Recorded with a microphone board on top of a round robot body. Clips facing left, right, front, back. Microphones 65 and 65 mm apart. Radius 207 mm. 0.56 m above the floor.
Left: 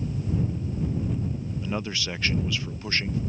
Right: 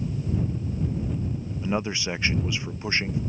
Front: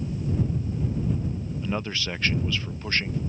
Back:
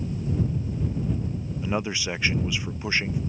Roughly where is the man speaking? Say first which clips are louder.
Right 5 dB, back 3 dB; behind right.